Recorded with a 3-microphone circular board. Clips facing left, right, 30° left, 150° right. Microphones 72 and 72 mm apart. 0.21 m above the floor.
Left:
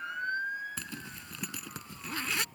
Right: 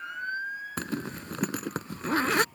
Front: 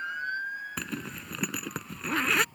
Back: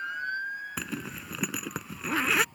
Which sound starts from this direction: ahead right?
A zipper, at 0.8 s.